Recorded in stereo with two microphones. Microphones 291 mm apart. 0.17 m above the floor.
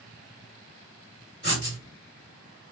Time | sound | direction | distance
1.4 | writing | 35° left (ahead or behind) | 1.7 m